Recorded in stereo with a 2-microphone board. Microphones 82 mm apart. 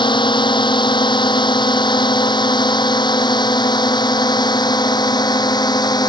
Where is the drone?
70° left (ahead or behind); by 6.1 s 55° left (ahead or behind).